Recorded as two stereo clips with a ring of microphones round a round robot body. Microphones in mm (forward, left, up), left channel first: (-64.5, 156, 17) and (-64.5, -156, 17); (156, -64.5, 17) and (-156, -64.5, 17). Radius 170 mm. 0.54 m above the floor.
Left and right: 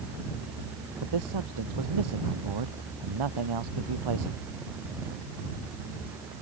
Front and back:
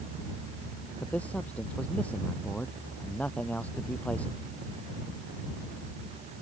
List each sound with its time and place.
1.0 s a man speaking: 85° right